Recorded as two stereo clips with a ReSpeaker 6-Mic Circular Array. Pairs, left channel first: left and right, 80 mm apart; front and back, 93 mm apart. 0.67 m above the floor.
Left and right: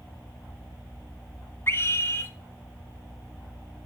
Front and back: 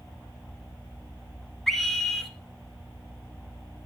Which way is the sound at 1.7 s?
85° left.